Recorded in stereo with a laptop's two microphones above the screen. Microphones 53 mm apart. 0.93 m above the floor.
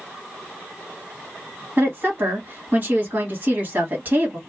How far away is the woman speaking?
About 1.6 m.